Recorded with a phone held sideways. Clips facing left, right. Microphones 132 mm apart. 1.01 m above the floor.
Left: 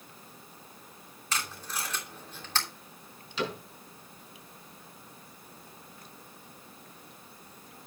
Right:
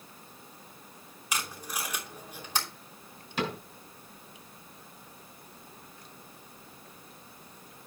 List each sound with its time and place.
1.3 s tape being pulled: 15° right (ahead or behind), 3 m
3.4 s a cupboard door: 55° right (ahead or behind), 6.5 m